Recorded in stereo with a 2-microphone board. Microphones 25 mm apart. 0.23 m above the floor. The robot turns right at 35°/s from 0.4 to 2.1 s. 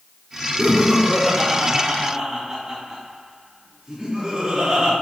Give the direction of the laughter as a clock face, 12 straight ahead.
7 o'clock.